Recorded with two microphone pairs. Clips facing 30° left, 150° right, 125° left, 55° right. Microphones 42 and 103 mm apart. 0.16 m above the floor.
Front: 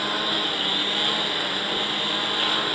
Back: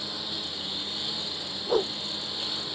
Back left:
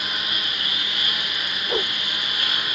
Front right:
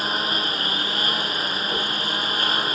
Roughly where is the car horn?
No car horn in this recording.